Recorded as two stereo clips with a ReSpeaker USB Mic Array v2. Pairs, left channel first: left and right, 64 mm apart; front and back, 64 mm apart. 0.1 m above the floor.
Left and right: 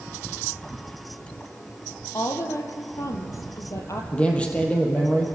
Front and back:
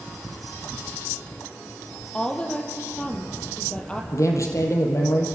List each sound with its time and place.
2.1 s a woman speaking: 70° left, 3 m
4.1 s a man speaking: 25° left, 3.5 m